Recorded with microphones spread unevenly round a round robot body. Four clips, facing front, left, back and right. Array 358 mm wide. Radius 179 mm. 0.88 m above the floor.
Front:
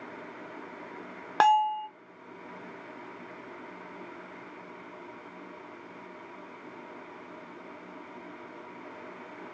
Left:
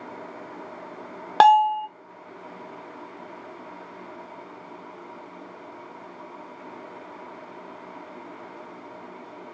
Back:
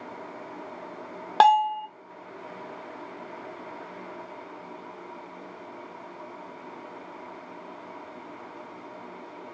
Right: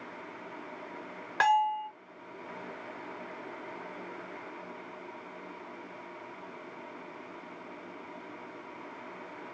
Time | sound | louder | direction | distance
1.4 | a bell | left 10 dB, back 4 dB | 115° left | 0.6 m